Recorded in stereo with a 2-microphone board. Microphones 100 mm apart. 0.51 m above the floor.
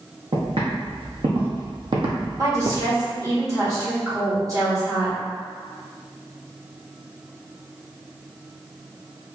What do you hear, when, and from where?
0.3 s footsteps: 60° right (ahead or behind), 2.0 m; by 2.9 s 40° right (ahead or behind), 0.6 m
2.4 s a woman speaking: 35° right (ahead or behind), 1.6 m